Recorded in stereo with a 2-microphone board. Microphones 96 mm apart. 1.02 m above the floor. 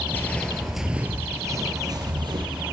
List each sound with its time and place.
0.1 s footsteps: 25° left (ahead or behind), 1.2 m; by 2.6 s 60° right (ahead or behind), 1.9 m